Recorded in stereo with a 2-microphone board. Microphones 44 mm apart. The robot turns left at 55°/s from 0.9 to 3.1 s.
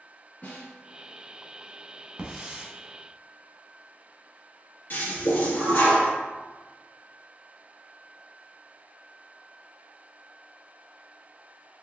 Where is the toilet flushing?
55° left (ahead or behind), 1.6 m.